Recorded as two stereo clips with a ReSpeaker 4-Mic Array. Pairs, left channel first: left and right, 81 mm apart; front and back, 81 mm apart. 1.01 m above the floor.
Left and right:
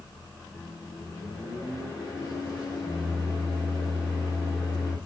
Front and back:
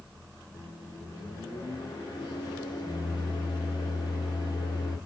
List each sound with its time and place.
0.5 s a microwave: 40° left, 1.3 m